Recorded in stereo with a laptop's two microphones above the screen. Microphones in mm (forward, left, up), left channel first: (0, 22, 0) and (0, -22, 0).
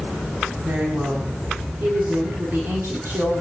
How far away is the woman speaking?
About 7 m.